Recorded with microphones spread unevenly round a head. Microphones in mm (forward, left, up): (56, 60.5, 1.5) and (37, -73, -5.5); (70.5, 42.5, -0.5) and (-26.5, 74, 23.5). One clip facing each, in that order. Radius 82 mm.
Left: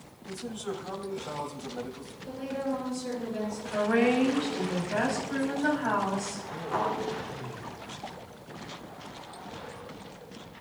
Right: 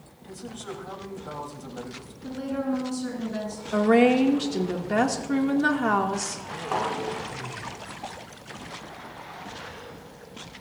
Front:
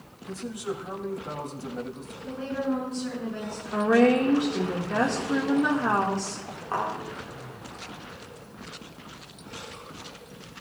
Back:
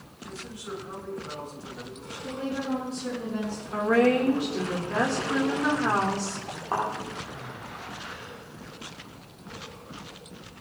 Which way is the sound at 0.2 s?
5° right.